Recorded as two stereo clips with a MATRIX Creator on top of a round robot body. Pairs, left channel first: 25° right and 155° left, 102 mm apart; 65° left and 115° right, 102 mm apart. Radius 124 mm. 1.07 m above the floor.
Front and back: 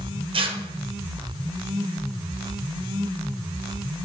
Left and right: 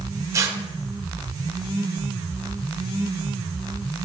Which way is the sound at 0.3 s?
170° right.